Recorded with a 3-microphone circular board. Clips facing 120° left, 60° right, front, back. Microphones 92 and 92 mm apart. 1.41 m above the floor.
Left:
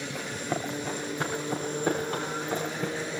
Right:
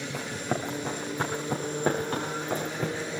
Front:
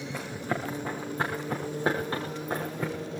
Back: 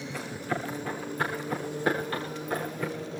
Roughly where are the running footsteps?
Right.